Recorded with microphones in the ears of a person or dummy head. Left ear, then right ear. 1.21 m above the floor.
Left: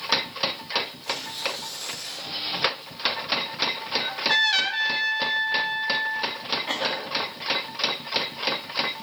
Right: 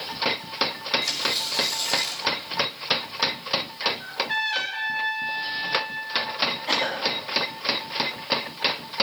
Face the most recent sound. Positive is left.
turn(degrees=0)  # may be behind; listen again after turning